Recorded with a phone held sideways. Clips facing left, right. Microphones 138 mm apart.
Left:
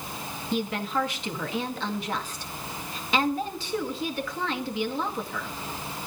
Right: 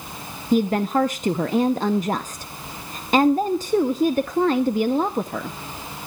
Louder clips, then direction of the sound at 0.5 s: Right 9 dB; 45° right (ahead or behind).